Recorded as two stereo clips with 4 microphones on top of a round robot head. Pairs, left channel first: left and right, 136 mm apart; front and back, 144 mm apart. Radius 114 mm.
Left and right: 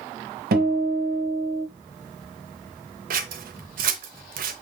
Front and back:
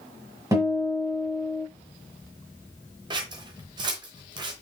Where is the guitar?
105° right, 1.3 m.